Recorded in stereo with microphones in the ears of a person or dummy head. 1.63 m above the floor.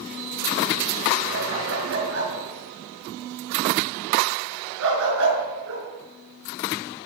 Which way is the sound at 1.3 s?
70° right (ahead or behind).